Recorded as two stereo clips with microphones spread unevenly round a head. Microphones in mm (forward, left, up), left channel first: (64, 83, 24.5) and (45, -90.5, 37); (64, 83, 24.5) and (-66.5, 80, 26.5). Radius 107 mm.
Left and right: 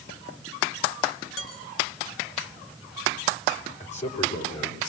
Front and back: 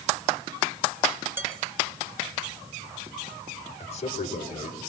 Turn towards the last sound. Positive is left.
turn(degrees=35)